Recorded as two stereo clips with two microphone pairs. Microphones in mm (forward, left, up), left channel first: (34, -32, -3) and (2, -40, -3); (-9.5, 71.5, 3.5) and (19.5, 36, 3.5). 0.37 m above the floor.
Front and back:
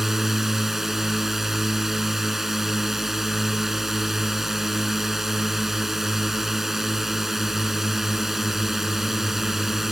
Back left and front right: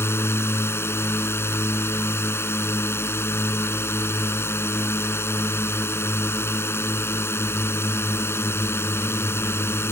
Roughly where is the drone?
Left.